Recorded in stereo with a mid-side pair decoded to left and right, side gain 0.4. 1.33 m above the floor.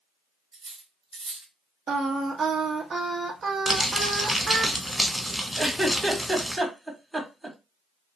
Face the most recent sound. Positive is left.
turn(degrees=-20)